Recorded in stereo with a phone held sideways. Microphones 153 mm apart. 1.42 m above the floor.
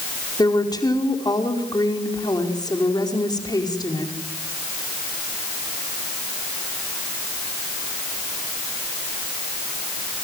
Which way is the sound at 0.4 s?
25° left (ahead or behind).